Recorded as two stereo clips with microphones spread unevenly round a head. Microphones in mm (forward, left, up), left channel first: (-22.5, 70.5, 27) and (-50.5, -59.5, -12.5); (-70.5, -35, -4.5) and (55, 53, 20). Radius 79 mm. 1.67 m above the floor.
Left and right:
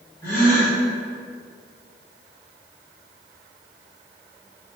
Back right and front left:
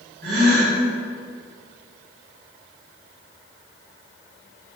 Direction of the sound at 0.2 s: Straight ahead.